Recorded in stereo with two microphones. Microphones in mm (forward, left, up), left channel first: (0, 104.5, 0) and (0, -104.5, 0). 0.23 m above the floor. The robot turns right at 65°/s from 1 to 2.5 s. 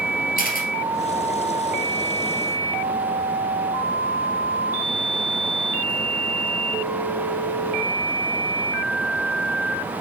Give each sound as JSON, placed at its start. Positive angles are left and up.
{"t": 0.4, "sound": "a camera shutter", "side_deg": 45, "distance_m": 2.0}